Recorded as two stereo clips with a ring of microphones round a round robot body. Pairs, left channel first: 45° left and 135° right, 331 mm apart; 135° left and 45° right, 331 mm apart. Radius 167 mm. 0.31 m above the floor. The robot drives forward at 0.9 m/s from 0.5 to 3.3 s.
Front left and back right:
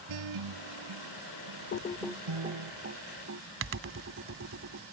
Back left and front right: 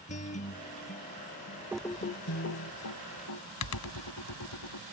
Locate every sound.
0.1 s a guitar: 155° right; by 2.7 s 170° right
1.7 s typing on a keyboard: 35° left; by 4.8 s 175° left